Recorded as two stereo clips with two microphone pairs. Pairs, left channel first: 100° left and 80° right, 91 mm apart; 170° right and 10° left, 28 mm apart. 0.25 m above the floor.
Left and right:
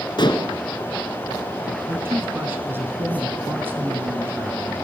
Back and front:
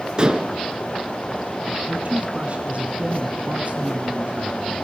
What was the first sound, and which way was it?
Dishes clattering, 65° left.